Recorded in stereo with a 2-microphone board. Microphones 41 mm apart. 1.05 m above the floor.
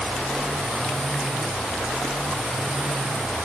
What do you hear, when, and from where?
Only background noise.